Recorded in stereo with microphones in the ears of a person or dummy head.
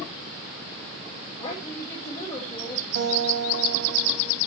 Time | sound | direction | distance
1.4 | a woman speaking | 30° left (ahead or behind) | 3.5 m
3.0 | a guitar | 70° right (ahead or behind) | 3 m